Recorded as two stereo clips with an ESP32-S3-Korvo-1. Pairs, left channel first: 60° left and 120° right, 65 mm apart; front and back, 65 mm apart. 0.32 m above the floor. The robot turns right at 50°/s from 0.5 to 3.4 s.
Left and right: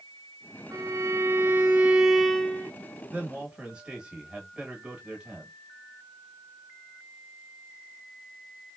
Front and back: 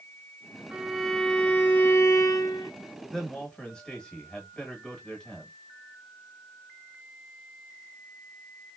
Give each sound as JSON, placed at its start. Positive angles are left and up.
{"t": 0.7, "sound": "a violin", "azimuth_deg": -105, "distance_m": 0.8}
{"t": 3.1, "sound": "a man speaking", "azimuth_deg": -75, "distance_m": 1.2}